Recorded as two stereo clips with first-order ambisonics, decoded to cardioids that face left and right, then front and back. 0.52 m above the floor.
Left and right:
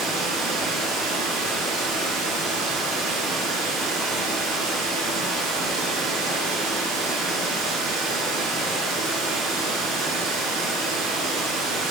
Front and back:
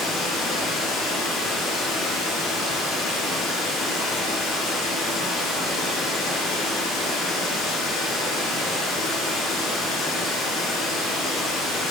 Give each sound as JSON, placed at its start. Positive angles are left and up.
{"t": 0.0, "sound": "running water", "azimuth_deg": -55, "distance_m": 1.8}